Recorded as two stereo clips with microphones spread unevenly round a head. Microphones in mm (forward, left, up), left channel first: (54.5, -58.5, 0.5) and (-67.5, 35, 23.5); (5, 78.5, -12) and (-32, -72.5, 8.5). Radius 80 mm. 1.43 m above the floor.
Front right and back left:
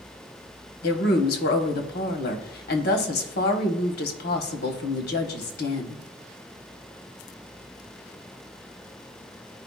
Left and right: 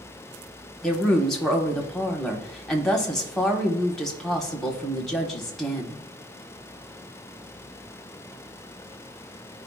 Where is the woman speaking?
10° right, 1.4 m.